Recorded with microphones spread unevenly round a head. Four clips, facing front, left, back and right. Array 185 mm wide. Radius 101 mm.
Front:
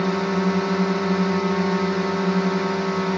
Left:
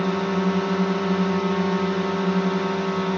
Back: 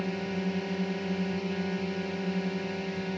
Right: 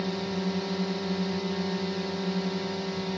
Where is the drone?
35° left.